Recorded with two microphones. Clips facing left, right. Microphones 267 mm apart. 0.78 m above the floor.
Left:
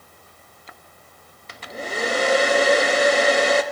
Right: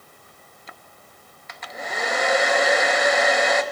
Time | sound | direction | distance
1.5 | a hair dryer | 35° left (ahead or behind) | 1.2 m